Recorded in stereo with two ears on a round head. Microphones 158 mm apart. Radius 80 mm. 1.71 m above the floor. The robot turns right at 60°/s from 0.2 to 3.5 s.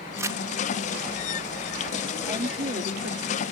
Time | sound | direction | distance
0.2 | crumpling | 15° right (ahead or behind) | ?
2.2 | a woman speaking | 160° right | ?